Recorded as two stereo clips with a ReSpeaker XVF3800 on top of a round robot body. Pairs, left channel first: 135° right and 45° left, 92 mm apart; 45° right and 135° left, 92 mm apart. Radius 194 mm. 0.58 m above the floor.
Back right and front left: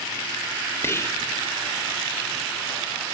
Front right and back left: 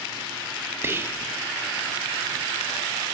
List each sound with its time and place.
0.8 s whispering: straight behind, 0.9 m